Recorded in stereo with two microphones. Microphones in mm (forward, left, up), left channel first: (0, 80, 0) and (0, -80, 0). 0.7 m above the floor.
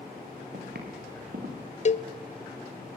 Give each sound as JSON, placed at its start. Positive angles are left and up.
{"t": 0.5, "sound": "footsteps", "side_deg": -80, "distance_m": 6.0}
{"t": 1.9, "sound": "a cowbell", "side_deg": 45, "distance_m": 0.7}